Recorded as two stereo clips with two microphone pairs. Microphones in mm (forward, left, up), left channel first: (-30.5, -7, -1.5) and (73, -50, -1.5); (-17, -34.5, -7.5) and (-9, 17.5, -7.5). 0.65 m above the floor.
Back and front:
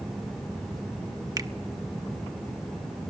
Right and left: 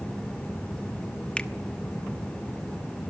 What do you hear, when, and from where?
1.4 s a finger snap: 45° right, 1.0 m